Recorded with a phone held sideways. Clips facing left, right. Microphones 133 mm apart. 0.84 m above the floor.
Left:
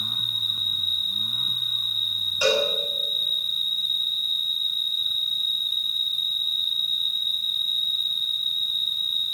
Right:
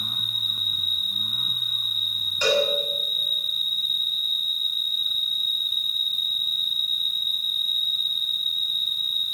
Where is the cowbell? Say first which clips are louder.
Even; 10° left (ahead or behind), 7 m.